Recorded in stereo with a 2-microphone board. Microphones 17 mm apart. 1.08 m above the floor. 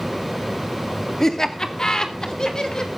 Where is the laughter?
25° left (ahead or behind), 1.6 m; by 2.9 s 45° left (ahead or behind), 3.5 m.